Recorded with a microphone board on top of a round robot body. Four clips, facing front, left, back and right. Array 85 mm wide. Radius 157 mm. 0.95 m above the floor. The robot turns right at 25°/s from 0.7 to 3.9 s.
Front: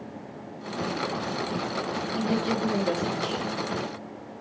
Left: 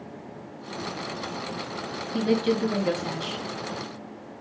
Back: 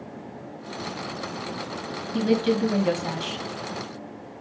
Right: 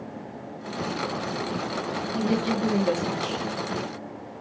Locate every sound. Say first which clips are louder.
2.1 s a woman speaking: left 3 dB, back 6 dB; 145° left, 2 m; by 3.5 s straight behind, 2 m